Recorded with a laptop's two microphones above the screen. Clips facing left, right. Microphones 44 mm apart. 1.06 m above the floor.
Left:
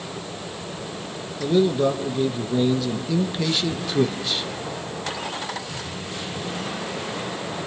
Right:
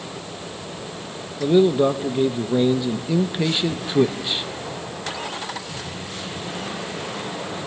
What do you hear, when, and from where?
1.4 s a man speaking: 20° right (ahead or behind), 0.8 m